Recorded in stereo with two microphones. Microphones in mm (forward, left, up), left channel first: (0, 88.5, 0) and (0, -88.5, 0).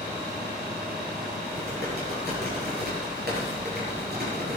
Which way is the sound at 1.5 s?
60° right (ahead or behind).